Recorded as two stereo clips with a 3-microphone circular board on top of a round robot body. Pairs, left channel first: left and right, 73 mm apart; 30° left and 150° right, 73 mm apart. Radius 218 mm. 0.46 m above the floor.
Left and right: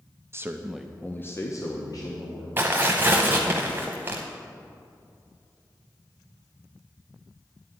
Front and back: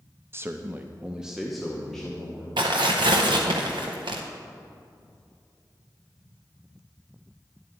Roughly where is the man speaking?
Behind right.